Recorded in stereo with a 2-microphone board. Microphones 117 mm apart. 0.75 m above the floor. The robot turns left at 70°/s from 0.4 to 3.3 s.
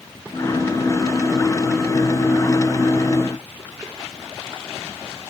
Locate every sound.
Only background noise.